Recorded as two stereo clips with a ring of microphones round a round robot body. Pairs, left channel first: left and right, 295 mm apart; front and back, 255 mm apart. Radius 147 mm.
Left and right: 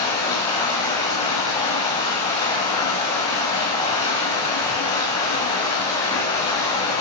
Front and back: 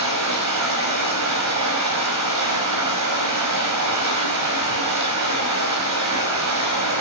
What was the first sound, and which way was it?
Running water, 170° left.